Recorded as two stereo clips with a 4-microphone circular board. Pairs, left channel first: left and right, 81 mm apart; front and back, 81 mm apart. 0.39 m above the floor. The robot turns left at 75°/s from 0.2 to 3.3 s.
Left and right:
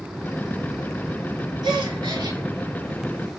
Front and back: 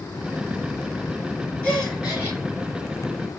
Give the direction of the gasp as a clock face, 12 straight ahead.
2 o'clock.